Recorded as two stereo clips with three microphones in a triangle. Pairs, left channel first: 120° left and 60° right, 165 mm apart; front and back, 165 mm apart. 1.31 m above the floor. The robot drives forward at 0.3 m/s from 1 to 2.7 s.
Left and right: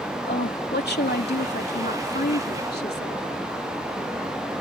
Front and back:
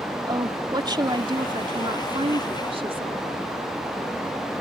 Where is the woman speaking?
115° left; by 3.2 s 125° left.